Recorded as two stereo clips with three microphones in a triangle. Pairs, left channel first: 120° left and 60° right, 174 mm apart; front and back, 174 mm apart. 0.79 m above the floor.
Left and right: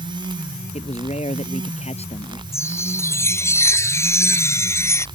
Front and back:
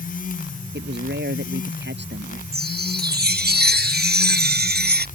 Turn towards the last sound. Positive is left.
turn(degrees=-165)